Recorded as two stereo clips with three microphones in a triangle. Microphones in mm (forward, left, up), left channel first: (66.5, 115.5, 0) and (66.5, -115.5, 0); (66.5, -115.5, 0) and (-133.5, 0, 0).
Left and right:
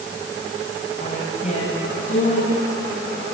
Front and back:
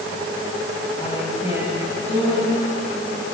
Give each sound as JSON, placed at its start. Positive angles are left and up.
{"t": 1.0, "sound": "a woman speaking", "azimuth_deg": 35, "distance_m": 6.0}